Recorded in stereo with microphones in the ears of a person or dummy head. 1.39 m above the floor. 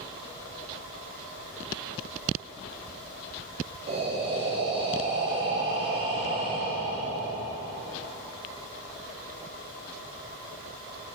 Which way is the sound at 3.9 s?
30° right (ahead or behind).